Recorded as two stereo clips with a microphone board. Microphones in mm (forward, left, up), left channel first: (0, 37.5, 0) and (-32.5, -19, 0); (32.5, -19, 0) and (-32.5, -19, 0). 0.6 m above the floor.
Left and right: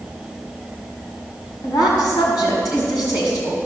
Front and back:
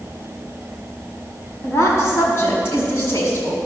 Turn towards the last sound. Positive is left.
turn(degrees=55)